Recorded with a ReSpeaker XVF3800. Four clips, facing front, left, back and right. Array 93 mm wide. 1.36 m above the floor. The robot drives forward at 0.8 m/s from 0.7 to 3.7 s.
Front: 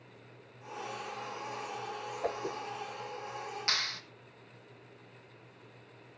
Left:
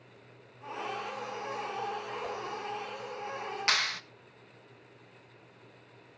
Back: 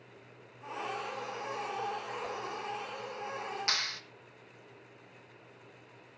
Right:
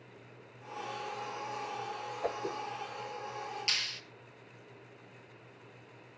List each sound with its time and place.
2.2 s a whoosh: 35° right, 0.9 m; by 2.6 s 55° right, 0.7 m
3.7 s a clap: 95° left, 1.3 m